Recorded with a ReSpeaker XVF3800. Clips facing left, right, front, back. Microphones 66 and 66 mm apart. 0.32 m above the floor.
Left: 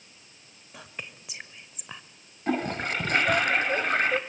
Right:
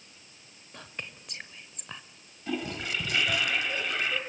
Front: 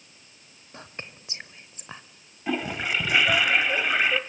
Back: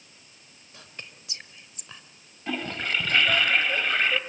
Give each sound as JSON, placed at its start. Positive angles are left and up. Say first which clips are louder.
{"t": 0.7, "sound": "whispering", "louder": "even, front 4 dB", "azimuth_deg": 15, "distance_m": 1.1}
{"t": 2.5, "sound": "a toilet flushing", "louder": "left 5 dB, front 2 dB", "azimuth_deg": 75, "distance_m": 1.9}